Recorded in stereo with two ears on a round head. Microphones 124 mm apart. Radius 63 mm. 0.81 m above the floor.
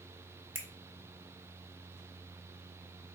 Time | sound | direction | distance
0.6 | a finger snap | 15° right (ahead or behind) | 1.0 m